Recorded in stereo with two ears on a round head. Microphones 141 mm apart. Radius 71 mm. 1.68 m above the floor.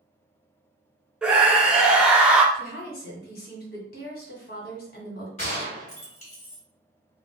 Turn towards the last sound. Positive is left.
turn(degrees=45)  # may be behind; listen again after turning